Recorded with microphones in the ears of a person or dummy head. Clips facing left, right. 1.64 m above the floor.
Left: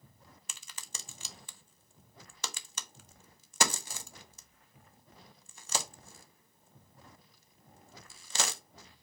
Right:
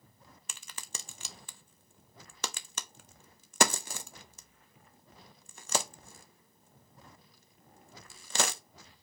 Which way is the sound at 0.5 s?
50° right (ahead or behind).